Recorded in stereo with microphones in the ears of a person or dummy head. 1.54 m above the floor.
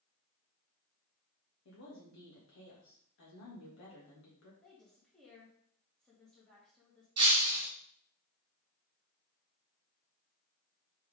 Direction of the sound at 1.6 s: 60° left (ahead or behind).